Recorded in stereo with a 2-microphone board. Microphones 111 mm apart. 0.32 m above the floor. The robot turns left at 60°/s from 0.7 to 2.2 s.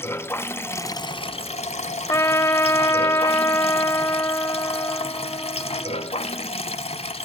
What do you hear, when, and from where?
0.0 s running water: 160° left, 1.0 m; by 7.2 s 70° left, 1.0 m
2.1 s a trumpet: 30° left (ahead or behind), 0.8 m; by 6.5 s 25° left (ahead or behind), 0.8 m